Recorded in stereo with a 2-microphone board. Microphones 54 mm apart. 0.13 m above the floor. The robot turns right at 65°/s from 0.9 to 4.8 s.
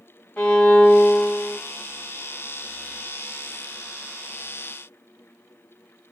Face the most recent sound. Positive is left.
turn(degrees=-85)